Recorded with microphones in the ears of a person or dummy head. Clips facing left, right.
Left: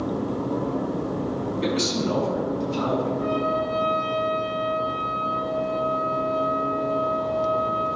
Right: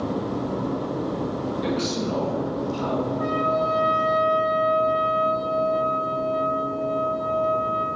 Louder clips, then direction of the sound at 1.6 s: Left 2 dB; 90° left.